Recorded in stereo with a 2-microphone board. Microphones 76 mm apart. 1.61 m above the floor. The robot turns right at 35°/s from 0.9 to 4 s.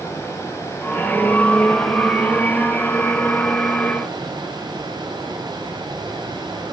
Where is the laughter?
No laughter in this recording.